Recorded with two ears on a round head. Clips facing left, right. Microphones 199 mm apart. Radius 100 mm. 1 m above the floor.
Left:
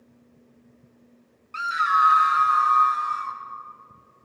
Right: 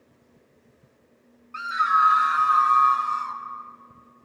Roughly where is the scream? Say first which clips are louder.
Even; left.